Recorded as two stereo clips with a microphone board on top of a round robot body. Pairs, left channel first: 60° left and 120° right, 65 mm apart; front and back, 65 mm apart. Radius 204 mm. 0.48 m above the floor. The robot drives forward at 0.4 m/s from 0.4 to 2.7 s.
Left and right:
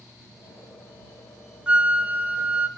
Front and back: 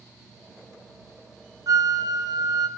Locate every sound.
1.7 s a flute: 170° left, 0.7 m; by 2.7 s 175° left, 1.0 m